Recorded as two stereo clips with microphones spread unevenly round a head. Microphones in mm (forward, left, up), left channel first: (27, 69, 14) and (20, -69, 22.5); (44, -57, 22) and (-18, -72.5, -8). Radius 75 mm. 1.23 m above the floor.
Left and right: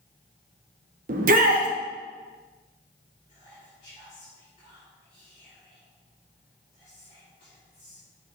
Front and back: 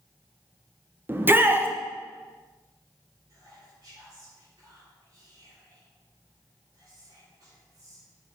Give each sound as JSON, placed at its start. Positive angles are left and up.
{"t": 1.1, "sound": "a shout", "azimuth_deg": -125, "distance_m": 1.3}
{"t": 3.3, "sound": "whispering", "azimuth_deg": 140, "distance_m": 4.0}